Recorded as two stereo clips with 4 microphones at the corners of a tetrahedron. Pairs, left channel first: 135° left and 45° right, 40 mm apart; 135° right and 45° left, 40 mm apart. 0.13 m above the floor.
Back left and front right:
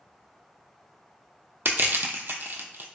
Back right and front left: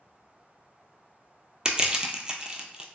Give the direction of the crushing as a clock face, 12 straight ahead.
1 o'clock.